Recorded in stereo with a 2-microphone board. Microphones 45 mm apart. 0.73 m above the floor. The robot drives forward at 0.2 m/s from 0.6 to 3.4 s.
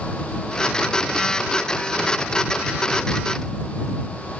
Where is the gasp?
I don't hear a gasp.